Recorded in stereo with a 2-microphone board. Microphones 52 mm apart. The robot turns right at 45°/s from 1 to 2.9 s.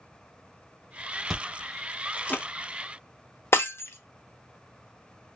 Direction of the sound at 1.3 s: 10° right (ahead or behind).